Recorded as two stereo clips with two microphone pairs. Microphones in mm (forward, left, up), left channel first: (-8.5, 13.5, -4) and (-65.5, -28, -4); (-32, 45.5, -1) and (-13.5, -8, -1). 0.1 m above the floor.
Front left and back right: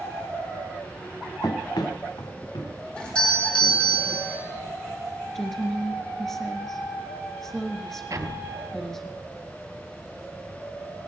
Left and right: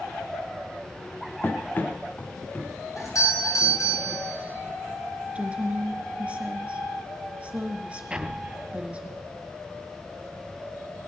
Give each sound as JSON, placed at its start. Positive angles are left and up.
{"t": 1.4, "sound": "running footsteps", "azimuth_deg": 55, "distance_m": 1.4}
{"t": 3.0, "sound": "a doorbell", "azimuth_deg": 115, "distance_m": 6.5}
{"t": 5.3, "sound": "a woman speaking", "azimuth_deg": -45, "distance_m": 1.7}
{"t": 8.1, "sound": "an explosion", "azimuth_deg": -140, "distance_m": 0.8}